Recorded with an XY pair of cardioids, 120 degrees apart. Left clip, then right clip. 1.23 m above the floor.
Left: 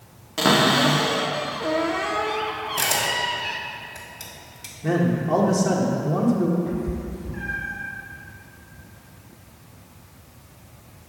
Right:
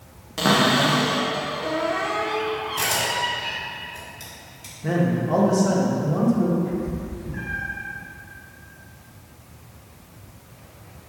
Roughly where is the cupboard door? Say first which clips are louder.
Left 1 dB; ahead.